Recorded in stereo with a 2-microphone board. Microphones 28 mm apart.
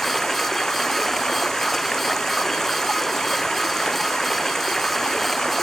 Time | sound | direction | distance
0.0 | running water | 15° left (ahead or behind) | ?